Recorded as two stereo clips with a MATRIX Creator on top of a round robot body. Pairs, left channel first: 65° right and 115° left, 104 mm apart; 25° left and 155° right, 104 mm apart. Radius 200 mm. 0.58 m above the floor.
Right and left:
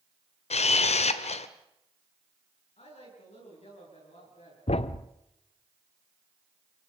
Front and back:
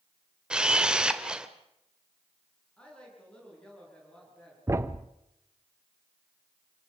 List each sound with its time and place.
0.5 s a camera shutter: 75° right, 1.2 m
2.8 s a woman speaking: 60° right, 9 m
4.7 s a thud: 90° right, 0.7 m